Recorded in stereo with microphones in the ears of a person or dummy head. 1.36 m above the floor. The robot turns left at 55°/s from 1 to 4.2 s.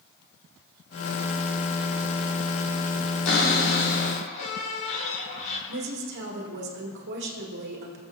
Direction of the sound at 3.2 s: 95° left.